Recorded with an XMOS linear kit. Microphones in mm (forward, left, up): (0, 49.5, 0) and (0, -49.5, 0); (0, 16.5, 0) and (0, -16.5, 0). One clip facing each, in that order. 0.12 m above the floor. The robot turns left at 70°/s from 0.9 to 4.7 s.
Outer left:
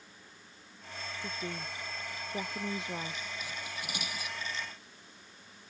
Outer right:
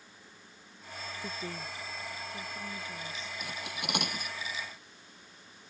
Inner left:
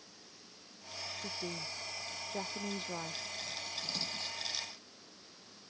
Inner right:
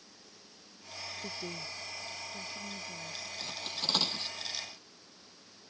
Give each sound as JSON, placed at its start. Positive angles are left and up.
{"t": 1.2, "sound": "a woman speaking", "azimuth_deg": -170}
{"t": 3.4, "sound": "cutlery clinking", "side_deg": -60}